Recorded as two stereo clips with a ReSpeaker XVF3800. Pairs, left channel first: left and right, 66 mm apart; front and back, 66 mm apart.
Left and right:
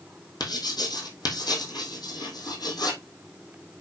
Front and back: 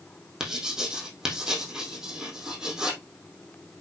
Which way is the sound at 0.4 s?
100° left.